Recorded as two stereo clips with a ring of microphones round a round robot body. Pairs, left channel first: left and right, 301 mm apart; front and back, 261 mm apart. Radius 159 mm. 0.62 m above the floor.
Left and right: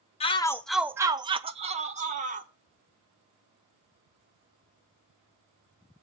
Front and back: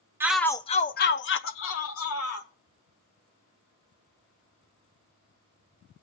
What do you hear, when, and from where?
0.2 s a shout: 115° left, 0.6 m; by 2.5 s 25° right, 1.4 m